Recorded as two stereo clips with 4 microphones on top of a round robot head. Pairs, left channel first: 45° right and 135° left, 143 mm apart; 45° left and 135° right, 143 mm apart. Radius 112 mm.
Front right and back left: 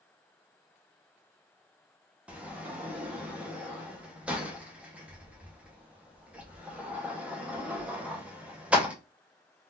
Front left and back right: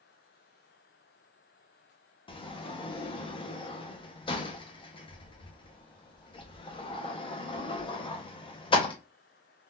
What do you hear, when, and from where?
2.3 s a sliding door: 60° left, 0.8 m